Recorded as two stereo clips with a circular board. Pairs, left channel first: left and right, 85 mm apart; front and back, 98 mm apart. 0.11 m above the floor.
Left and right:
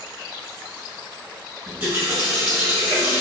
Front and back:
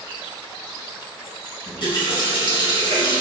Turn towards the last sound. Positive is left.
turn(degrees=-30)